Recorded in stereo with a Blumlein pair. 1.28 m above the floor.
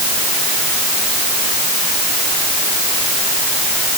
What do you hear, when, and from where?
Only background noise.